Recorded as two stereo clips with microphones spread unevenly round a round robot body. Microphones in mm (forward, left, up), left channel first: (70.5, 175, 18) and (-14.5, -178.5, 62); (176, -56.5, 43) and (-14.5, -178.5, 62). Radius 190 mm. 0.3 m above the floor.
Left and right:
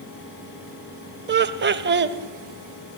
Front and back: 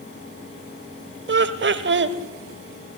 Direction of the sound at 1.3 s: 165° right.